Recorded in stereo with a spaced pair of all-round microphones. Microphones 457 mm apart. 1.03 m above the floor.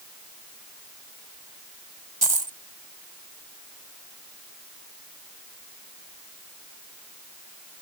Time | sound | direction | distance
2.2 | a dropped coin | 45° right (ahead or behind) | ?